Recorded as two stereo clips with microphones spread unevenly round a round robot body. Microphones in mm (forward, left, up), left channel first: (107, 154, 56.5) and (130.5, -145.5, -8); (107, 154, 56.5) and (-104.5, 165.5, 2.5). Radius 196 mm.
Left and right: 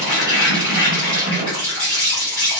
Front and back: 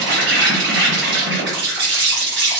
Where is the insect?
175° left, 0.9 m.